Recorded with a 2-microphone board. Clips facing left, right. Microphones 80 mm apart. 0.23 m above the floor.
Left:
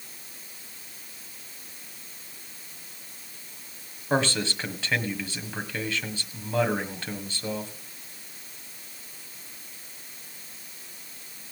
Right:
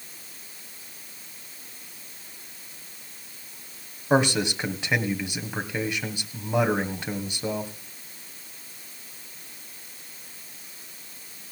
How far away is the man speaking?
About 1.7 m.